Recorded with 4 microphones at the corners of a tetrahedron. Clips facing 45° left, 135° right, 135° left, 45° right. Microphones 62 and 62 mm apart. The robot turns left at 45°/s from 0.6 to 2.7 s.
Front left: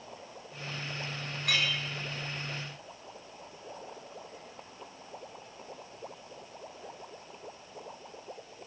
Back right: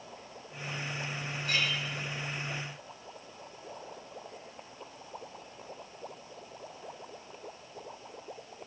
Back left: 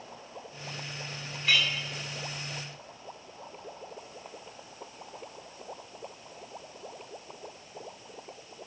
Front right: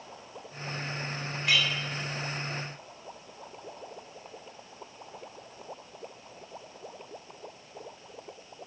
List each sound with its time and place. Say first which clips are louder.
1.4 s a clink: front left 1 dB, even; 35° left, 4.5 m; by 1.7 s 25° left, 4.5 m